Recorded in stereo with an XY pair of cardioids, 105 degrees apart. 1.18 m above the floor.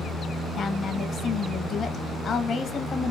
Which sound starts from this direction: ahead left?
A woman speaking, at 0.6 s.